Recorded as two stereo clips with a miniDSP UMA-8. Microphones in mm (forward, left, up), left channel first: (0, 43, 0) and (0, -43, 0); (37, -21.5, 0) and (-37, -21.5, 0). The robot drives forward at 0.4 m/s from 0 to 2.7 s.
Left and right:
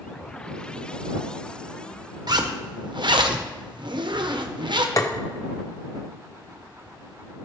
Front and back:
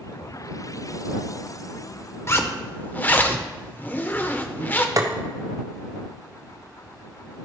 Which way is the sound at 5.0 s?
140° left.